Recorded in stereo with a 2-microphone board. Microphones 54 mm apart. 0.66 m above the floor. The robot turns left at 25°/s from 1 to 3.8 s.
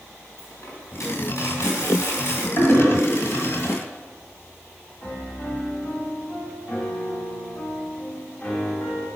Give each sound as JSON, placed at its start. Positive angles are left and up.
{"t": 0.4, "sound": "a dropped coin", "azimuth_deg": 85, "distance_m": 2.5}
{"t": 2.6, "sound": "a toilet flushing", "side_deg": 50, "distance_m": 1.7}
{"t": 5.0, "sound": "a piano", "side_deg": 30, "distance_m": 1.0}